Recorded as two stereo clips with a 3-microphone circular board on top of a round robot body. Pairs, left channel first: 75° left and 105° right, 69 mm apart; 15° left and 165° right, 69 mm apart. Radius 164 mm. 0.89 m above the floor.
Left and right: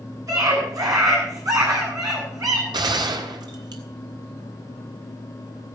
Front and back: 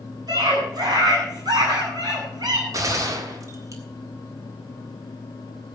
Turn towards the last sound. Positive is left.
turn(degrees=-125)